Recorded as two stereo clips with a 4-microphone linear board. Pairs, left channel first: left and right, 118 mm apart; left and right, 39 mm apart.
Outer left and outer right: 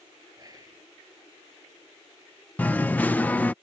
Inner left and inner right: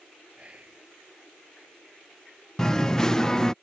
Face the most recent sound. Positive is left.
turn(degrees=15)  # may be behind; listen again after turning